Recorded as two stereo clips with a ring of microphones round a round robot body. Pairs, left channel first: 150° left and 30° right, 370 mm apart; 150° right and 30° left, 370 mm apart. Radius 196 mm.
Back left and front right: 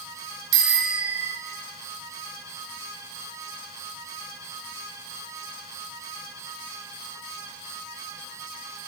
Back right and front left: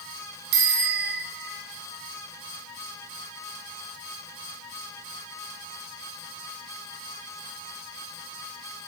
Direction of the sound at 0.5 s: 15° right.